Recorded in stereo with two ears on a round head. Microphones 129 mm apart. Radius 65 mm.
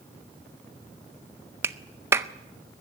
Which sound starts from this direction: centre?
A clap, at 1.6 s.